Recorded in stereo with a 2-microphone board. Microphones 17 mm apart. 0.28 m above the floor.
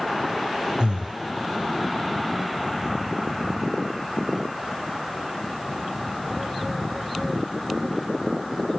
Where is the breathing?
85° right, 0.6 m.